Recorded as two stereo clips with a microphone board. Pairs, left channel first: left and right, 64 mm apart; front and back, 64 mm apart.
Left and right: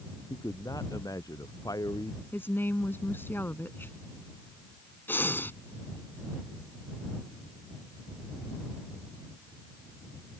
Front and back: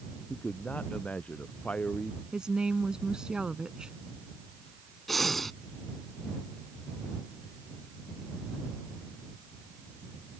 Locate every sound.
0.3 s a man speaking: 70° left
2.3 s a woman speaking: 110° left
5.1 s breathing: 85° left